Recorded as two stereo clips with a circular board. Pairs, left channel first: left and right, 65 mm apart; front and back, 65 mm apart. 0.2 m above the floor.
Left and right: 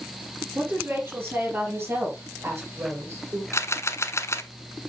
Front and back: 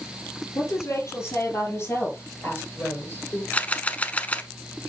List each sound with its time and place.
0.6 s a woman speaking: 35° right, 6 m; by 3.4 s 45° right, 4 m
3.5 s a camera shutter: 60° left, 0.7 m